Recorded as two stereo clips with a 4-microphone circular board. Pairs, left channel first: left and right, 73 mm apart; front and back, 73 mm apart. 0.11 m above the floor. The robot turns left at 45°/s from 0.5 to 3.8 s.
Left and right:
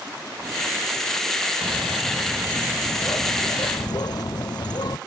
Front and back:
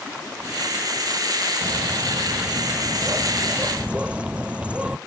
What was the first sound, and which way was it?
A bird, 155° right.